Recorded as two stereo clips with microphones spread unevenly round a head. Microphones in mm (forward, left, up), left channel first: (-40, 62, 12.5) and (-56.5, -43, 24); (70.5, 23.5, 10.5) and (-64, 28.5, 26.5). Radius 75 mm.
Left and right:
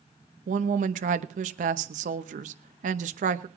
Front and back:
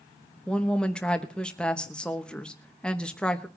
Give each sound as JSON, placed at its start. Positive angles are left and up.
{"t": 0.5, "sound": "a woman speaking", "azimuth_deg": -85, "distance_m": 0.9}